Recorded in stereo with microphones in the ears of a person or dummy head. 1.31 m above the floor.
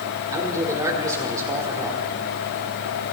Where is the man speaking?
15° right (ahead or behind), 5 m.